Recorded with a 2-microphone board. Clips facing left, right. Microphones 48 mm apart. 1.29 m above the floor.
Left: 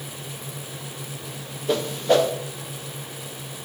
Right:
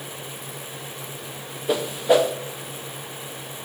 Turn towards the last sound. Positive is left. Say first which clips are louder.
# right 1 dB
turn(degrees=-10)  # may be behind; listen again after turning